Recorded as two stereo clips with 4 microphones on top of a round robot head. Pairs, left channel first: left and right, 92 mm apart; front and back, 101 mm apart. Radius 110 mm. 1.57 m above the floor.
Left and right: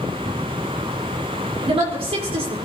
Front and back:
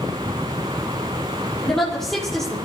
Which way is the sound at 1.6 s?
85° right.